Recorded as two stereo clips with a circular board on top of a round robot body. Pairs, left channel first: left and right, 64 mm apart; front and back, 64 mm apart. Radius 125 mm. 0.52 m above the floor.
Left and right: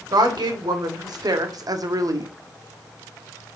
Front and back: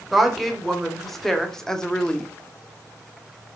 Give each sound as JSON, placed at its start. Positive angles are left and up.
{"t": 0.1, "sound": "a woman speaking", "azimuth_deg": -85, "distance_m": 2.5}